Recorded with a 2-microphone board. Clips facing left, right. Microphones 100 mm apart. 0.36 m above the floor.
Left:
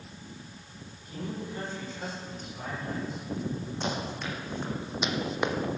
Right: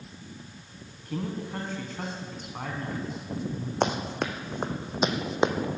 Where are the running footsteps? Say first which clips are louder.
Right 8 dB; 70° right (ahead or behind), 1.7 m; by 5.5 s 20° right (ahead or behind), 1.1 m.